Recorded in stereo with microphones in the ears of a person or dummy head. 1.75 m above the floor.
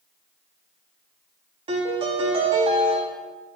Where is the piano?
30° right (ahead or behind), 0.8 m.